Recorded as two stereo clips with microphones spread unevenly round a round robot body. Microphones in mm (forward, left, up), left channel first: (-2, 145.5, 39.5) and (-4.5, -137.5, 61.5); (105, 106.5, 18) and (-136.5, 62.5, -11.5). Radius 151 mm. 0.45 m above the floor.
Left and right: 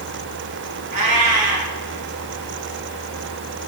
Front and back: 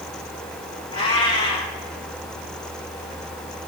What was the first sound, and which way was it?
A cat meowing, 65° right.